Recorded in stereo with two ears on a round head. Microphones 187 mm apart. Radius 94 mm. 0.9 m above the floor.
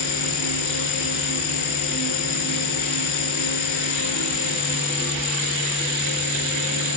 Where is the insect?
60° left (ahead or behind), 2 m.